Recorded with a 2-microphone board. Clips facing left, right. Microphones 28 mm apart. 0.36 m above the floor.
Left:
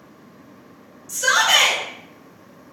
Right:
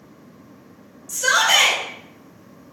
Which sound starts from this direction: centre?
A shout, at 1.1 s.